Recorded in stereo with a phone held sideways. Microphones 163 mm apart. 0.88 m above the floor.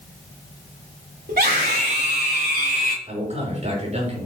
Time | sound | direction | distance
1.3 | a scream | 80° right | 3.5 m
3.1 | a man speaking | 45° right (ahead or behind) | 5.5 m